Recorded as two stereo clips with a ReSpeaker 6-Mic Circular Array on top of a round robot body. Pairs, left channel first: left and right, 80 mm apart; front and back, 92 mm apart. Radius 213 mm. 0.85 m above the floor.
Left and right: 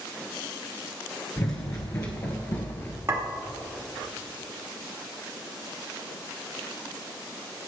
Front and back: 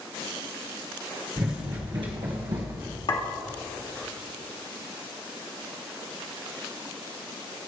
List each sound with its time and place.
1.4 s running footsteps: 135° left, 1.1 m; by 3.0 s 145° left, 3 m
3.1 s a clink: 35° right, 2.5 m